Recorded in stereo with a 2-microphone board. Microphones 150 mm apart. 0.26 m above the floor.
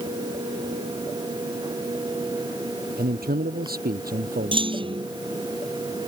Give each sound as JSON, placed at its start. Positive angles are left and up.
{"t": 3.0, "sound": "a man speaking", "side_deg": -80}
{"t": 4.5, "sound": "a clunk", "side_deg": -35}